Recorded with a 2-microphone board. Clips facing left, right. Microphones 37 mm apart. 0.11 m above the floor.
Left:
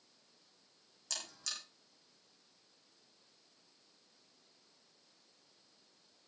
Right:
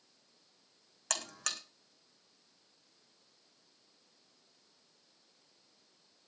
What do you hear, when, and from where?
1.1 s a buzzer: 65° right (ahead or behind), 2.5 m